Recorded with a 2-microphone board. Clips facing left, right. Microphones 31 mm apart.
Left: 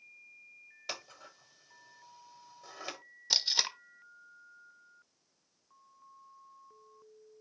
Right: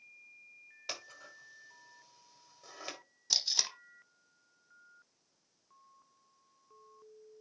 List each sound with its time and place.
0.9 s scissors: 5° right (ahead or behind), 1.3 m
3.3 s tape being pulled: 25° left (ahead or behind), 0.6 m